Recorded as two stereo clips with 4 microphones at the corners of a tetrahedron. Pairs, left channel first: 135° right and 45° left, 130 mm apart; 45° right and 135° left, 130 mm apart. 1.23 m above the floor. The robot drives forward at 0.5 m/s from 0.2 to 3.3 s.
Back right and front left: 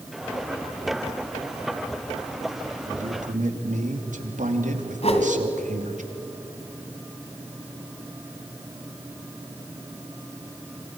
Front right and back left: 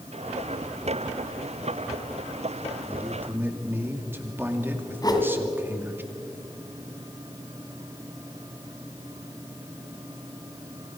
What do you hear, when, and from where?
2.9 s a man speaking: 55° left, 2.5 m; by 6.0 s 60° left, 2.5 m
5.0 s a whoosh: 105° right, 2.5 m